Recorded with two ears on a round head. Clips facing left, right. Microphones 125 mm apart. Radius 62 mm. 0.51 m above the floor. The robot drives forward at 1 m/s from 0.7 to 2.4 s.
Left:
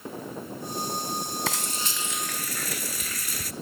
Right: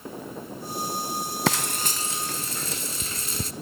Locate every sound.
1.5 s frying: 55° right (ahead or behind), 0.6 m; by 3.5 s 25° right (ahead or behind), 1.2 m